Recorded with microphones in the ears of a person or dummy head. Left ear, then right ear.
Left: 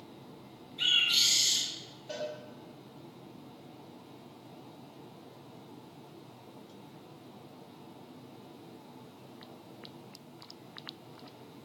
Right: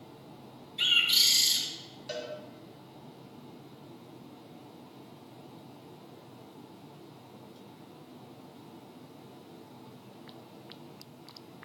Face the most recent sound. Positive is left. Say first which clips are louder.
# even
turn(degrees=-50)  # may be behind; listen again after turning